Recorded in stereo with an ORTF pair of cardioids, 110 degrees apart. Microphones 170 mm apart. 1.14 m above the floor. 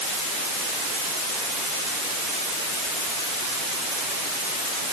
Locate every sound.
Only background noise.